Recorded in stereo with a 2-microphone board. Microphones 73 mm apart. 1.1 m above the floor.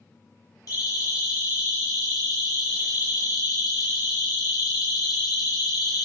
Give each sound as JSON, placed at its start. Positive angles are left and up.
{"t": 0.7, "sound": "a siren", "side_deg": 60, "distance_m": 8.0}